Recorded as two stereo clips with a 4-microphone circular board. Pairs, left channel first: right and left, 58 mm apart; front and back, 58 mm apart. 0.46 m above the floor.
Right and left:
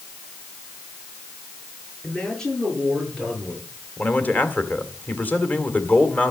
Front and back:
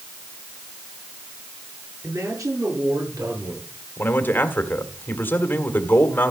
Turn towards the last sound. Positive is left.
turn(degrees=-40)